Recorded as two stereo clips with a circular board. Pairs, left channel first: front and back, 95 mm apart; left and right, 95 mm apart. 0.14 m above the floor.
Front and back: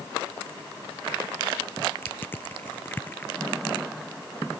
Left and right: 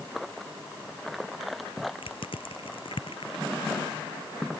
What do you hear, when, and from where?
2.0 s crushing: 70° left